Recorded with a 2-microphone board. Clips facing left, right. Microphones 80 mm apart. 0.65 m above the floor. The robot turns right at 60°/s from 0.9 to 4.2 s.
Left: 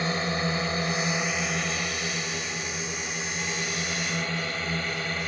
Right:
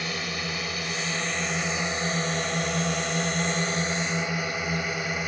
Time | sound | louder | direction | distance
0.0 | a drone | left 5 dB | 30° left (ahead or behind) | ?